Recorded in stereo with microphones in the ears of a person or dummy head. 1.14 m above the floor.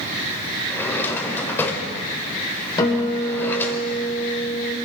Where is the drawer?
15° left (ahead or behind), 2.0 m.